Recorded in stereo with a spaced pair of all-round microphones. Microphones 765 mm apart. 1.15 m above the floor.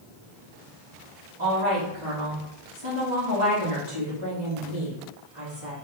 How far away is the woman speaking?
About 1.9 m.